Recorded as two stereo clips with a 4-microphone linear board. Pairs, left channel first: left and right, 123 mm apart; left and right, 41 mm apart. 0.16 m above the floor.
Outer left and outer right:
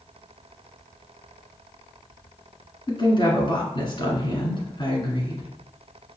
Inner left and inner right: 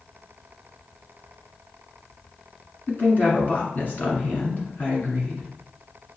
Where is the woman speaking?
40° left (ahead or behind), 1.5 m.